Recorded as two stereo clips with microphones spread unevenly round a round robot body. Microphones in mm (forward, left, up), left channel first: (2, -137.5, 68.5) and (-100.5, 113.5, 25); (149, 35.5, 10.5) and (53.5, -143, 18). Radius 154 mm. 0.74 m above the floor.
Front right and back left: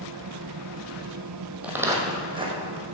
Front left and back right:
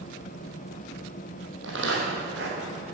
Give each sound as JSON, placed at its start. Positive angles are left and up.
{"t": 1.6, "sound": "footsteps", "azimuth_deg": -160, "distance_m": 1.8}